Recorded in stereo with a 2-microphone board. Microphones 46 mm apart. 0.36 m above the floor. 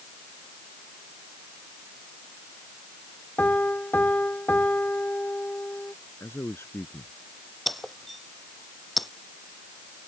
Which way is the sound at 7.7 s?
Centre (ahead or behind).